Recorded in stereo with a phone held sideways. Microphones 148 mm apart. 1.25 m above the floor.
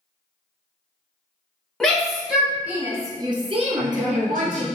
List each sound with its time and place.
1.8 s a shout: 5° left (ahead or behind), 1.3 m; by 4.7 s 80° right, 0.7 m
3.8 s a man speaking: 35° right (ahead or behind), 1.2 m